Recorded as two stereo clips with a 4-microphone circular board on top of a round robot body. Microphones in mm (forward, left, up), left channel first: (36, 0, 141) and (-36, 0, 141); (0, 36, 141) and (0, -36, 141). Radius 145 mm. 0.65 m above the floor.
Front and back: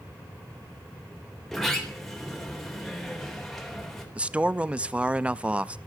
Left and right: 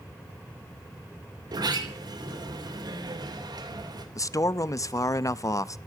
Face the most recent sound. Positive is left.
turn(degrees=110)